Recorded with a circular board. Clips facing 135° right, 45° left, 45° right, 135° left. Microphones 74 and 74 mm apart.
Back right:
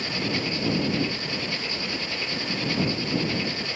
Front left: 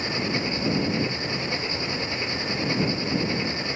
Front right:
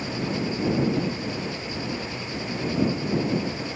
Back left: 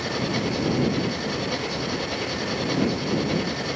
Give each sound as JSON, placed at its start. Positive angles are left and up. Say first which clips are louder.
{"t": 0.0, "sound": "an engine running", "louder": "front left 1 dB, back left 2 dB", "azimuth_deg": 110}